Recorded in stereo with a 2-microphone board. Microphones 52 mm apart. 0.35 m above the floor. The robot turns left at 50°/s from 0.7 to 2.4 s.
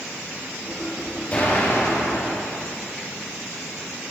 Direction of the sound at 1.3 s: 150° left.